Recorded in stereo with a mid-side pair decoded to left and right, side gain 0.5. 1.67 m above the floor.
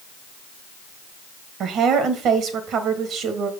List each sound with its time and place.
1.6 s a woman speaking: 65° right, 1.8 m